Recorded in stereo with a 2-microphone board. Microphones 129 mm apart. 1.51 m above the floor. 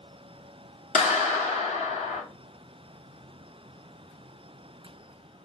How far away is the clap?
About 2.5 m.